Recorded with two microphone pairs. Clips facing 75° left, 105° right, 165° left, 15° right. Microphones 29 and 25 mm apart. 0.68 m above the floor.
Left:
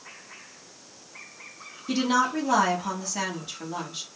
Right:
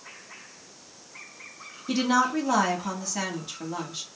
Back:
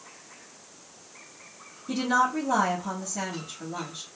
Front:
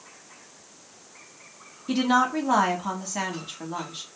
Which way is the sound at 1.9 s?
15° right.